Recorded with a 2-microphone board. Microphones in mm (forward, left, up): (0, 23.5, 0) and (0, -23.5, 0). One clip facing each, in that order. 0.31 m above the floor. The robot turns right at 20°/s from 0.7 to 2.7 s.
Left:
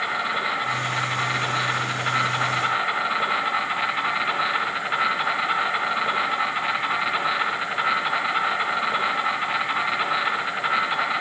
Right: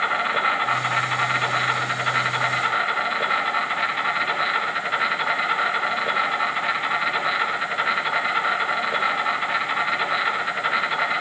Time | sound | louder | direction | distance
0.0 | an insect | right 3 dB | 35° right | 3 m